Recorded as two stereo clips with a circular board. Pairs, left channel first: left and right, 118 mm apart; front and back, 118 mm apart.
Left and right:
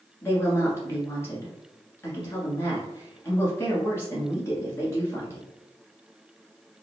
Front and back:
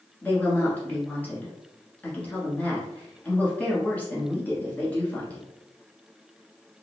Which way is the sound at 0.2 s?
60° left.